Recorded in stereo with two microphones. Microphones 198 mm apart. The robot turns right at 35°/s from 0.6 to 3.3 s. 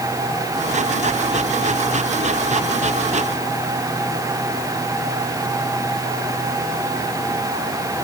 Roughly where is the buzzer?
I don't hear a buzzer.